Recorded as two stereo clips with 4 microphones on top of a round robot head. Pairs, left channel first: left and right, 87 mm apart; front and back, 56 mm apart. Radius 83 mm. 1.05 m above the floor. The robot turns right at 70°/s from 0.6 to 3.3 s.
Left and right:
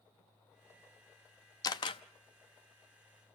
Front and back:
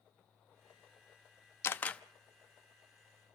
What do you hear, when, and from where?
1.6 s a camera shutter: 45° left, 0.6 m; by 2.0 s 70° left, 0.6 m